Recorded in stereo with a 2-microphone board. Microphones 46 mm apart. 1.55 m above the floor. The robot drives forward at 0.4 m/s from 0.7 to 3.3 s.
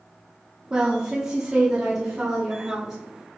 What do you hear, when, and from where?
0.7 s a woman speaking: 20° right (ahead or behind), 0.7 m; by 3.0 s 10° right (ahead or behind), 1.6 m